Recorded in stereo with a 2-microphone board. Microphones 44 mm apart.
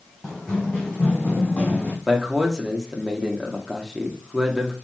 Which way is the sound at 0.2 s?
15° left (ahead or behind).